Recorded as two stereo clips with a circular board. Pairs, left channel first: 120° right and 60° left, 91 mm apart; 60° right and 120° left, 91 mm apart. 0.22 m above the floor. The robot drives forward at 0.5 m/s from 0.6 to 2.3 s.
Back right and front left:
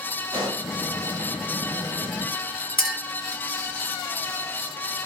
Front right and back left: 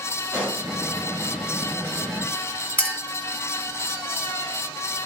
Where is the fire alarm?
I don't hear a fire alarm.